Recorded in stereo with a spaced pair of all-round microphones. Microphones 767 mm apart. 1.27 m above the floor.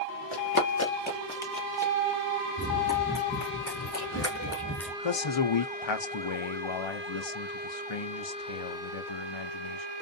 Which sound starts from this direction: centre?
Running footsteps, at 2.6 s.